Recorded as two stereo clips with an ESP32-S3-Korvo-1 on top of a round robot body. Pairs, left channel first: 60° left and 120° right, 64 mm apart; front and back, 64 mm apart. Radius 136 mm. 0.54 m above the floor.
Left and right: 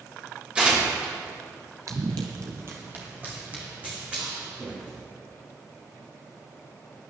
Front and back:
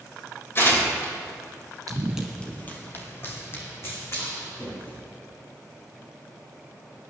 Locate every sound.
0.6 s tearing paper: 45° right, 3.5 m
1.9 s running footsteps: 155° right, 0.6 m; by 5.0 s 45° right, 4.5 m